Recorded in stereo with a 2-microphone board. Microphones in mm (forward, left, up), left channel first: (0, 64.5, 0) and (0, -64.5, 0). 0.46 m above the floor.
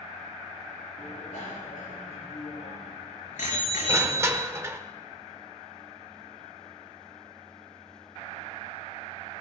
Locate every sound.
1.0 s a bicycle bell: 85° left, 6 m; by 4.6 s 75° left (ahead or behind), 4.5 m
3.9 s crushing: 20° right (ahead or behind), 1.2 m